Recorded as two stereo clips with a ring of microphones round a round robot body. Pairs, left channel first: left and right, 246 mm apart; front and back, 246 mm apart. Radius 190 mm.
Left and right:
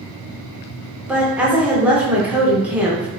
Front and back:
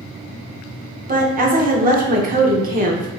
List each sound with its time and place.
1.1 s a woman speaking: 170° right, 1.1 m